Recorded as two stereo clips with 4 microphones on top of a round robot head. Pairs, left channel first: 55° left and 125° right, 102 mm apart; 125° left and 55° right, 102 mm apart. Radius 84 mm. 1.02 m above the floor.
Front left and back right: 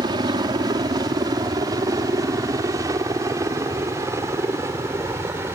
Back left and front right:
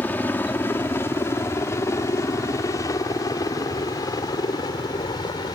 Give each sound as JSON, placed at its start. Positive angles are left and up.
{"t": 0.0, "sound": "a helicopter", "azimuth_deg": -165}